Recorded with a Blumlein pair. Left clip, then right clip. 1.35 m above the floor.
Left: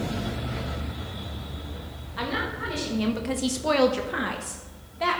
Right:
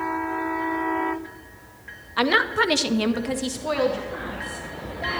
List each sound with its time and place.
2.2 s a woman speaking: 65° right, 1.5 m; by 5.2 s 45° left, 3 m